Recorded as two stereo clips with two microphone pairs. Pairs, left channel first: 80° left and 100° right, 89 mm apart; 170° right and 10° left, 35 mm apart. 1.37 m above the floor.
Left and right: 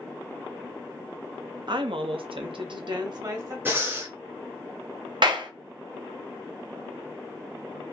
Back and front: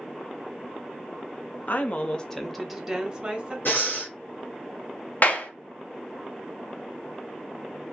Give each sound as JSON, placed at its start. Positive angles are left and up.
{"t": 1.7, "sound": "a woman speaking", "azimuth_deg": -135, "distance_m": 0.5}
{"t": 3.6, "sound": "breathing", "azimuth_deg": -165, "distance_m": 1.0}
{"t": 5.2, "sound": "a clap", "azimuth_deg": -130, "distance_m": 0.6}